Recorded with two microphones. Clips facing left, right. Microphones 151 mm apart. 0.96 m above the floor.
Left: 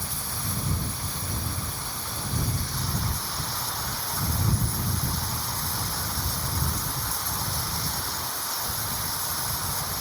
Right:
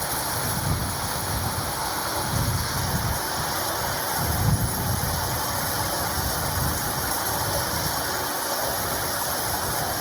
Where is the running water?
80° right.